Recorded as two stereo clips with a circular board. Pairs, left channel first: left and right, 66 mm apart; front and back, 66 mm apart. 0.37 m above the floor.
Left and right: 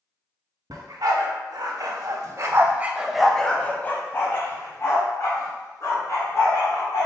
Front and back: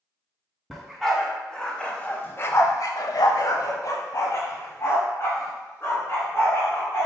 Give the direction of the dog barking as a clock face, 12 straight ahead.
3 o'clock.